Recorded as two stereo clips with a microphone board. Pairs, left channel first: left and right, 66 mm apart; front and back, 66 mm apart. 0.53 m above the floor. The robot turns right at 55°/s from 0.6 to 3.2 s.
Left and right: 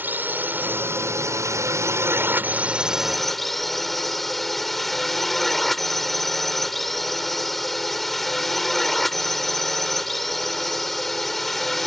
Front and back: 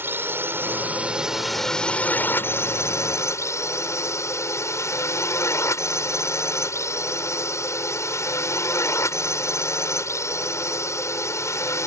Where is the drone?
140° right; by 11.9 s 5° left.